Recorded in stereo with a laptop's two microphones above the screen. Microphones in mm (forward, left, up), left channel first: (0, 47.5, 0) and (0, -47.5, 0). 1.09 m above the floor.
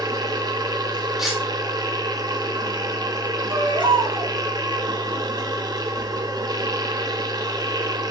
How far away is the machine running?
About 0.9 m.